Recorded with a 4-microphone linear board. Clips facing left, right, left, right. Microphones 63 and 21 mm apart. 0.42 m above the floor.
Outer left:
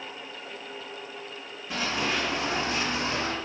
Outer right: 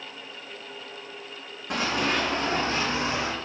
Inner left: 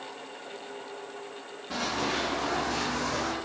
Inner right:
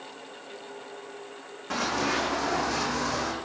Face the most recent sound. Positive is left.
turn(degrees=-15)  # may be behind; listen again after turning